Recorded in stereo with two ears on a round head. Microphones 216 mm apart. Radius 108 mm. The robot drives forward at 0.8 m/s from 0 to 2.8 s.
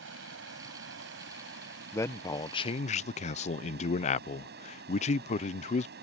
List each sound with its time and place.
0.0 s running water: 55° right (ahead or behind); by 6.0 s 45° right (ahead or behind)
1.9 s a man speaking: 10° left (ahead or behind); by 5.9 s 30° left (ahead or behind)